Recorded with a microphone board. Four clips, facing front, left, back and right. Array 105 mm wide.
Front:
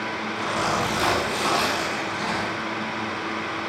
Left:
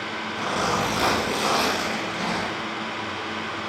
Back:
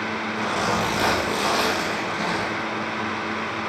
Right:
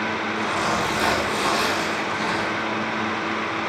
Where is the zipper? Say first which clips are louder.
Left 1 dB, back 1 dB; 135° left, 3 m.